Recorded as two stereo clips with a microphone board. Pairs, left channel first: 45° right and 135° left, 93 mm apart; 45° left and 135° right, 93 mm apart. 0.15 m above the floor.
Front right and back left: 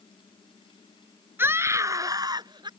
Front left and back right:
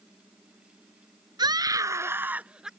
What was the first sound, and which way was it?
A scream, 165° right.